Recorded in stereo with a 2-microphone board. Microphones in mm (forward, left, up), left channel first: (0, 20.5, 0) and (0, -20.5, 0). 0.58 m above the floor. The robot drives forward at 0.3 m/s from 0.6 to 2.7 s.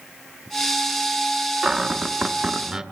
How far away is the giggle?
I don't hear a giggle.